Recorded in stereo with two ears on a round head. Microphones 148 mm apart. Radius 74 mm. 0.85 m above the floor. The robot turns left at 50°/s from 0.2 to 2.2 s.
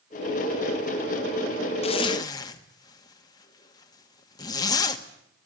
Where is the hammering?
I don't hear hammering.